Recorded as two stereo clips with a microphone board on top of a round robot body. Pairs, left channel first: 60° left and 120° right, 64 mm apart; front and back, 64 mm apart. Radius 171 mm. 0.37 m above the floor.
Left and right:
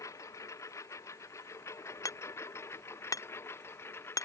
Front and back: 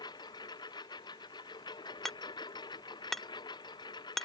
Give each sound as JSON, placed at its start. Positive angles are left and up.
{"t": 0.0, "sound": "a lawn mower", "azimuth_deg": 15}
{"t": 2.0, "sound": "hammering", "azimuth_deg": 85}